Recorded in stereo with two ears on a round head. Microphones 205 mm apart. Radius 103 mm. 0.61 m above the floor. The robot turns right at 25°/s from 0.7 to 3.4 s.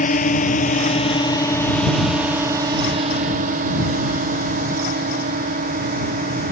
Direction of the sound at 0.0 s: 35° left (ahead or behind).